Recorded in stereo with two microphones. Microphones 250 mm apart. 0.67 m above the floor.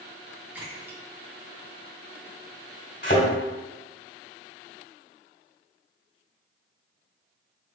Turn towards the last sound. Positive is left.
turn(degrees=45)  # may be behind; listen again after turning